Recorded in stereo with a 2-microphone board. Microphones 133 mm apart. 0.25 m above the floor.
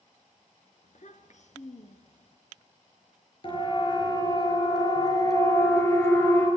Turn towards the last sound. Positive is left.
turn(degrees=15)  # may be behind; listen again after turning